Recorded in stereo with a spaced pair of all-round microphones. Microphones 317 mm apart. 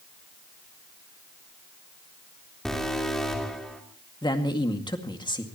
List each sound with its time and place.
2.6 s an alarm: centre (ahead or behind), 3 m
4.2 s a man speaking: 15° left (ahead or behind), 2.0 m